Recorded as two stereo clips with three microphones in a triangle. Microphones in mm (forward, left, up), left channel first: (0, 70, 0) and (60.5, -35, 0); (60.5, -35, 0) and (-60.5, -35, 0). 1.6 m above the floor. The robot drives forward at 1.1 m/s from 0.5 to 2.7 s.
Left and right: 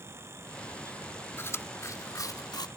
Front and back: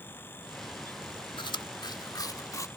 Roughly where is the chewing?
Ahead left.